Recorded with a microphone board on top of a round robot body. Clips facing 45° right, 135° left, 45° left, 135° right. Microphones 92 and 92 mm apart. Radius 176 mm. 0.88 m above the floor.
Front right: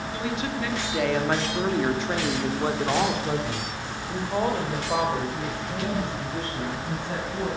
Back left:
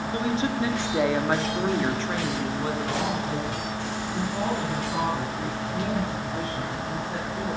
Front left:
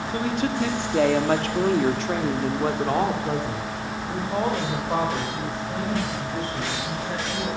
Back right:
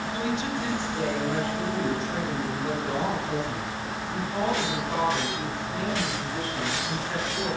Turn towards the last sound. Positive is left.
turn(degrees=-20)